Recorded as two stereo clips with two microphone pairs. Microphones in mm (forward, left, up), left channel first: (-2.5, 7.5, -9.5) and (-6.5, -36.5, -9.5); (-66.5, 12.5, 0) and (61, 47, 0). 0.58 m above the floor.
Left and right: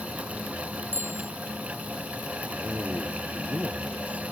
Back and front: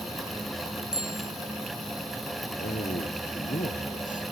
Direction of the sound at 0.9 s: 70° right.